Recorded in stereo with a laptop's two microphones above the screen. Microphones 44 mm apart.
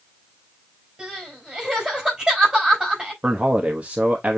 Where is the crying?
15° right (ahead or behind), 5 m.